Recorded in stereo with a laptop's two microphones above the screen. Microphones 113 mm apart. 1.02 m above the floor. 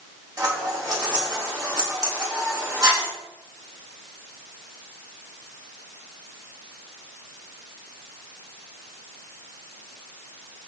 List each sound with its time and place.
0.4 s scissors: 40° right (ahead or behind), 5.5 m